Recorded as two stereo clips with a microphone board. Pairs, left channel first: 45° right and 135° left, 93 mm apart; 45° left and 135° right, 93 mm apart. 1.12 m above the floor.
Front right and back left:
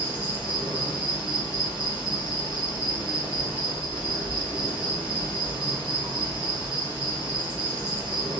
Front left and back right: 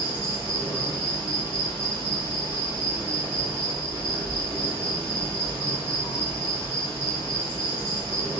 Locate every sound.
0.0 s an insect: 150° right, 2.0 m